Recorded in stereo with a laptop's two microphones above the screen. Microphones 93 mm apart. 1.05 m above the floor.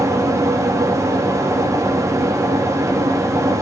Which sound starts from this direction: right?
A fan, at 0.0 s.